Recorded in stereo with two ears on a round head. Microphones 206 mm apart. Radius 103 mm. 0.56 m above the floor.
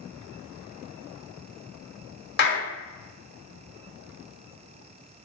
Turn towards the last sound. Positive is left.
turn(degrees=45)  # may be behind; listen again after turning